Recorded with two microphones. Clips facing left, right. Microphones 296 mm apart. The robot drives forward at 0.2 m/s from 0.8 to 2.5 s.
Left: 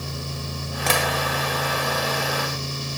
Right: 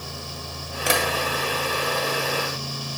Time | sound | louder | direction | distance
0.9 | tapping | right 1 dB | 15° right (ahead or behind) | 0.7 m